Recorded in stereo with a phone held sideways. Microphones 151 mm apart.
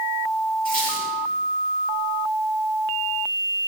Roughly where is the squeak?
Left.